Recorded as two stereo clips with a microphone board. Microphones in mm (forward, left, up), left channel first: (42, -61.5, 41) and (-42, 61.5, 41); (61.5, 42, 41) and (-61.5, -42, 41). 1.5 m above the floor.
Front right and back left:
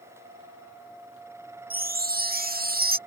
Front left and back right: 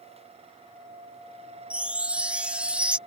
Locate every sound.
1.7 s a chime: 130° left